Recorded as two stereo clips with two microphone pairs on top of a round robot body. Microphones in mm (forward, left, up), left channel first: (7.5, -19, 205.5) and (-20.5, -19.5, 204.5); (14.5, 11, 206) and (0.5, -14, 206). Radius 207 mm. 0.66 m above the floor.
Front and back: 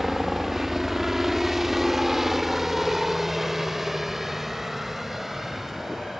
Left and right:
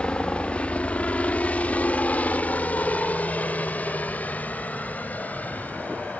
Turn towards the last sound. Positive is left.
turn(degrees=95)